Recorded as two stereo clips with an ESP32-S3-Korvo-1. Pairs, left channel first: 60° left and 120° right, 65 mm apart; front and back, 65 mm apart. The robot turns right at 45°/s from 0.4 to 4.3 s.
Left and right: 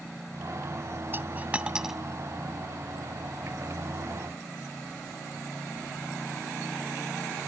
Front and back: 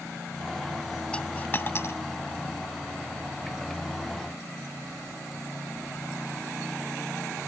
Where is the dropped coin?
75° right; by 2.0 s 35° right.